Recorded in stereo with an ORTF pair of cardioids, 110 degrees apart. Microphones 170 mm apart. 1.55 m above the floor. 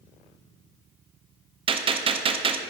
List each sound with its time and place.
1.7 s a gunshot: 30° right, 0.5 m